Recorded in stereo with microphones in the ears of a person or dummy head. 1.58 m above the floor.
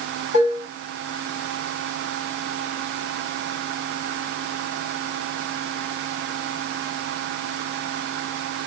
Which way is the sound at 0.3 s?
65° left (ahead or behind).